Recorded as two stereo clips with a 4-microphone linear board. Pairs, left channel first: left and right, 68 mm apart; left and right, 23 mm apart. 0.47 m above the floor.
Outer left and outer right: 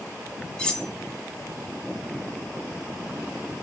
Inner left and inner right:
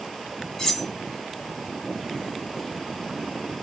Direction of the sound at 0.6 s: 10° left (ahead or behind).